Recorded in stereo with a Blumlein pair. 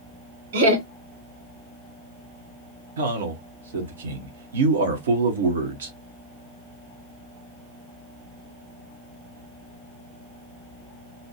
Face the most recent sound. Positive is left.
turn(degrees=-60)